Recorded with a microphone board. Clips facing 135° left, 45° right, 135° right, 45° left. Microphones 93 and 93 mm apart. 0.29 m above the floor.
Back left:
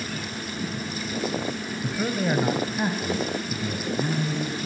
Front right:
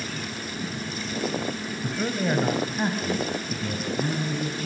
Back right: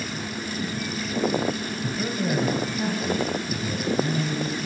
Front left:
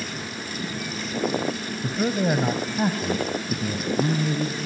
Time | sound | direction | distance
1.8 | a man speaking | 50° left | 1.3 m